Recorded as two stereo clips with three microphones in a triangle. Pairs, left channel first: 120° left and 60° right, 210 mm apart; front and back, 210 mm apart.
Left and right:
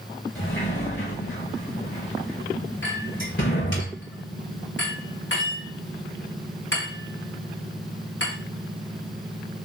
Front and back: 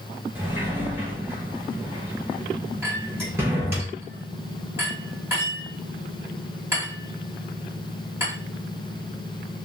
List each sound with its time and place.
0.3 s a sliding door: 100° left, 4 m
2.8 s a clink: 100° left, 4.5 m